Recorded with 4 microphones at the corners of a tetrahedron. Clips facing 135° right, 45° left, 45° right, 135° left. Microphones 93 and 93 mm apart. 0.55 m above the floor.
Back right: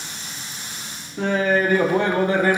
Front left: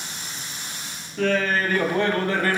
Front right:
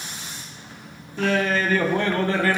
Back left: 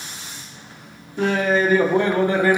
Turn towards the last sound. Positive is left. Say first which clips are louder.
# back right 2 dB, back left 3 dB
turn(degrees=180)